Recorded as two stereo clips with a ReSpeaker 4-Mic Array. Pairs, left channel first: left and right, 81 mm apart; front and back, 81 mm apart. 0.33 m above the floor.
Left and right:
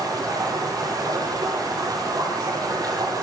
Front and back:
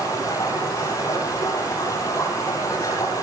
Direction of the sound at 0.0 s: 50° right.